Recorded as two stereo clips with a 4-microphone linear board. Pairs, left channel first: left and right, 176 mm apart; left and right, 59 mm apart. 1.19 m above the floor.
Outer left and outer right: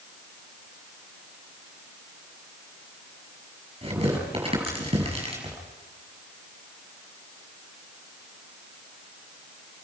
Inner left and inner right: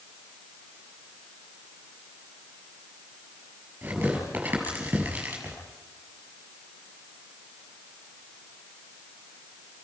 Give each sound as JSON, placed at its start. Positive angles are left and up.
{"t": 3.8, "sound": "tearing paper", "side_deg": -30, "distance_m": 7.5}